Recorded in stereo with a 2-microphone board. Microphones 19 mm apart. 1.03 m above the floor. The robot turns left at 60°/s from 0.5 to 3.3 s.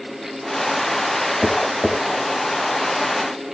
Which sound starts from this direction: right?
Tapping, at 1.4 s.